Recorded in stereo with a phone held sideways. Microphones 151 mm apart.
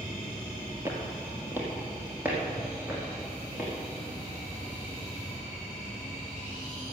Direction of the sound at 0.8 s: 15° right (ahead or behind).